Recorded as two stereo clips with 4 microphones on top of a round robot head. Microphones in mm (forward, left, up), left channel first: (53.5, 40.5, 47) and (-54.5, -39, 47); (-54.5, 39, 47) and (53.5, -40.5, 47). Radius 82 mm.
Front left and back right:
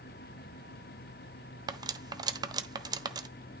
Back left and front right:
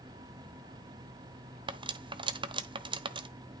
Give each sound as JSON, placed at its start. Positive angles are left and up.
{"t": 1.7, "sound": "cutlery clinking", "azimuth_deg": -85, "distance_m": 1.0}